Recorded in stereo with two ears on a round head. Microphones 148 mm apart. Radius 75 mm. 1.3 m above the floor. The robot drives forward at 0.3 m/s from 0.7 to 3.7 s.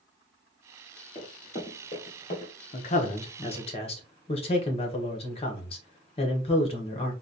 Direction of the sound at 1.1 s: 35° left (ahead or behind).